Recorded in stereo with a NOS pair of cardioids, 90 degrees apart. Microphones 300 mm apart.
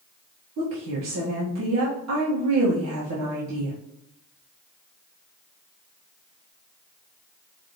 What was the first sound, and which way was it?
A woman speaking, 60° right.